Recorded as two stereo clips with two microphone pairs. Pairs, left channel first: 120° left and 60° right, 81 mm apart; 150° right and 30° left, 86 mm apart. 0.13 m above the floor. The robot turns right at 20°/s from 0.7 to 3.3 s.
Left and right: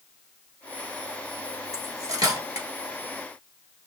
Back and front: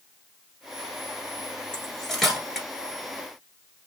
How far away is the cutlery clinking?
About 1.4 m.